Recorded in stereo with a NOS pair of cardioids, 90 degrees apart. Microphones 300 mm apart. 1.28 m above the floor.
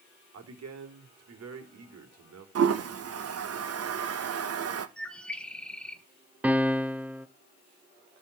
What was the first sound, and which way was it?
A man speaking, 55° right.